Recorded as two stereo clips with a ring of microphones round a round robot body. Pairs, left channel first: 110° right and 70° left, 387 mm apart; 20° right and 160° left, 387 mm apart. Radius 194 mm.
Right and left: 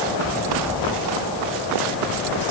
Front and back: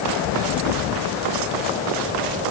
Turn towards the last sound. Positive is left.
No sound to turn to.